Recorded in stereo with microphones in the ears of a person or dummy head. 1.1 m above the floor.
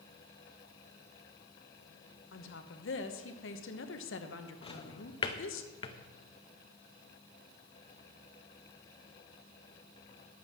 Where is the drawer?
30° left (ahead or behind), 0.7 m.